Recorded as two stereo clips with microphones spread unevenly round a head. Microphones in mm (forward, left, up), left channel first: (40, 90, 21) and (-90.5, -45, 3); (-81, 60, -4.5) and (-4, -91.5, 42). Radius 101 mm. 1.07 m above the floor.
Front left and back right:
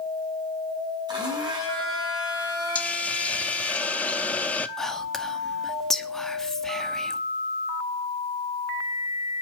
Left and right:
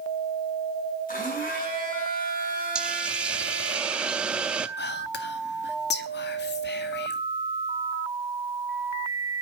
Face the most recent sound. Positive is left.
turn(degrees=135)